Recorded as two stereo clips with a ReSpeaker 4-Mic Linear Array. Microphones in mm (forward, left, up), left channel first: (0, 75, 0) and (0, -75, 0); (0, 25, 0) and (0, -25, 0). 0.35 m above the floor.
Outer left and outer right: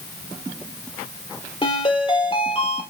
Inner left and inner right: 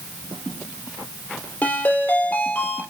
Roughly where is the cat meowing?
I don't hear a cat meowing.